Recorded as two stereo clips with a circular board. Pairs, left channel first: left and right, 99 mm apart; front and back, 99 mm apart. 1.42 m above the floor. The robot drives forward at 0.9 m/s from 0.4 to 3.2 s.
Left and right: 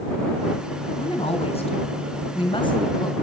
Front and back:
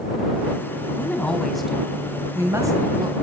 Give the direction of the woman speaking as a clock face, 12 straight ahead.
10 o'clock.